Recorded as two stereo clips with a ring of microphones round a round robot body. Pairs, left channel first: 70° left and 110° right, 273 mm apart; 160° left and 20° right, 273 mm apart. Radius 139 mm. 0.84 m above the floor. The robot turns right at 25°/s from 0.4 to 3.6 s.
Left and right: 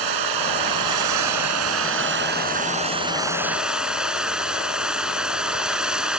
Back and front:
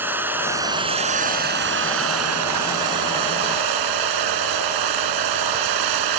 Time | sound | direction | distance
0.0 | running water | 105° right | ?